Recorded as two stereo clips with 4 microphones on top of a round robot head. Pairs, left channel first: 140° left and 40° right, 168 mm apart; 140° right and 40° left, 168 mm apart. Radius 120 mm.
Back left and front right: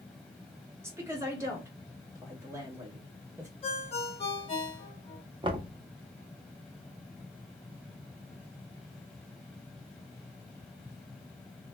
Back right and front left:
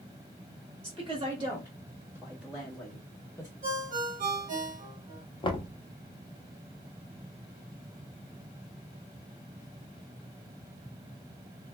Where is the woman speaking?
25° left, 1.6 m; by 3.5 s 90° right, 1.4 m.